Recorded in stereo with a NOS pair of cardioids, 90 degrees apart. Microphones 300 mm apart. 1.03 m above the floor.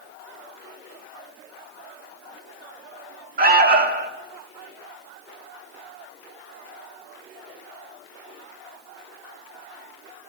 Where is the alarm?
35° right, 3.5 m.